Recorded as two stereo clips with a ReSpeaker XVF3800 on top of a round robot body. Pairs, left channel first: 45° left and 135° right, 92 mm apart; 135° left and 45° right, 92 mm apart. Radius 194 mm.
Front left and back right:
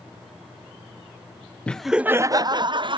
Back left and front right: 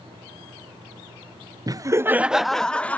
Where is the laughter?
25° right, 0.6 m; by 3.0 s 150° right, 0.8 m.